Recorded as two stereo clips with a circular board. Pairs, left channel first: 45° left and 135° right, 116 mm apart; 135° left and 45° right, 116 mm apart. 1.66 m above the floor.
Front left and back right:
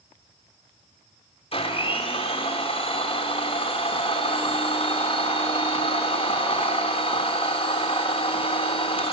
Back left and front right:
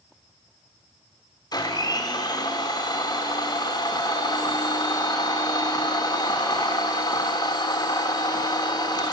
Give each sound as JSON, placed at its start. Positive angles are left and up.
{"t": 1.5, "sound": "a blender", "azimuth_deg": 80, "distance_m": 3.5}